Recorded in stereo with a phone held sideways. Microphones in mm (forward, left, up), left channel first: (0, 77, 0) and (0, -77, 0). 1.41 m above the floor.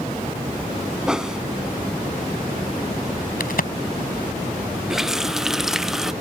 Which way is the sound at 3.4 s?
70° left (ahead or behind).